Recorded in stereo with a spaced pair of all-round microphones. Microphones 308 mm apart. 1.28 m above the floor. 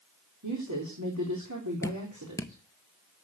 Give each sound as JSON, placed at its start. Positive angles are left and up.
{"t": 0.4, "sound": "a woman speaking", "side_deg": -65, "distance_m": 3.5}
{"t": 1.8, "sound": "dripping", "side_deg": 10, "distance_m": 0.9}